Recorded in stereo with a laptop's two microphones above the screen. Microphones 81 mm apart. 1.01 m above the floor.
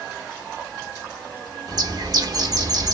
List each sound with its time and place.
1.7 s a bird: 50° right (ahead or behind), 0.8 m